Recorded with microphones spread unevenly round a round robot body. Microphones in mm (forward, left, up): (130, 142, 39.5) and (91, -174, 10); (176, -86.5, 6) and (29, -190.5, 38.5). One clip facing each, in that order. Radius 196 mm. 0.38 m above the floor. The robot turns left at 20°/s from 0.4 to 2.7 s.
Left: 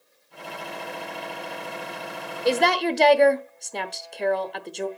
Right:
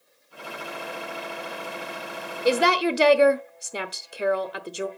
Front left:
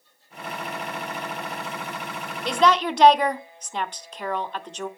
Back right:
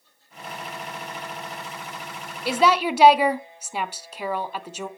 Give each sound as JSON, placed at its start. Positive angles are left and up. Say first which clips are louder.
{"t": 2.5, "sound": "a woman speaking", "louder": "right 1 dB, even", "azimuth_deg": -40, "distance_m": 0.8}